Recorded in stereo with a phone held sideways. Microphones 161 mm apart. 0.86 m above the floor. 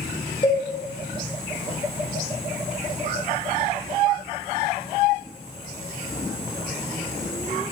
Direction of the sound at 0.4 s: 30° left (ahead or behind).